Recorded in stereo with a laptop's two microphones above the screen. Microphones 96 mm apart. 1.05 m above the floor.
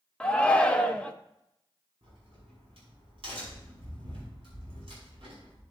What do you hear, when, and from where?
0.2 s a shout: 10° left (ahead or behind), 0.8 m
2.0 s a crack: 70° right (ahead or behind), 5.5 m